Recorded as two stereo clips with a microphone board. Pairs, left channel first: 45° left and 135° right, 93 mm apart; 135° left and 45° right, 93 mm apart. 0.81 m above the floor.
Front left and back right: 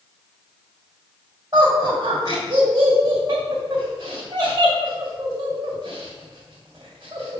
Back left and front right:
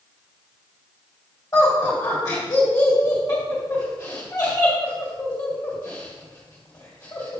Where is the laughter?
170° right, 2.0 m.